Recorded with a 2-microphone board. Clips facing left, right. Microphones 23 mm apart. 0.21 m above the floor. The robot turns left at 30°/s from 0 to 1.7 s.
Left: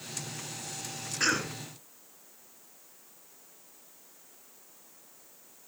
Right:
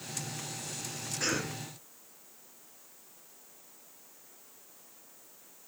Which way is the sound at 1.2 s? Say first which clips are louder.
Left 4 dB; 30° left (ahead or behind).